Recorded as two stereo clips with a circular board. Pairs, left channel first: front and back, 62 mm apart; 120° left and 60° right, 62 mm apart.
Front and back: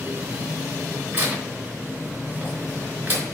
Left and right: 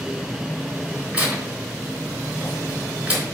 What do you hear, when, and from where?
1.1 s tearing paper: 130° right, 3.5 m